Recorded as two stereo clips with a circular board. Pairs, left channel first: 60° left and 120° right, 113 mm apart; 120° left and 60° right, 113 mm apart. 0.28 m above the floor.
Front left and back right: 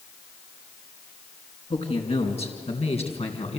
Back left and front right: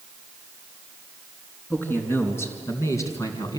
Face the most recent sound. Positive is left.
turn(degrees=70)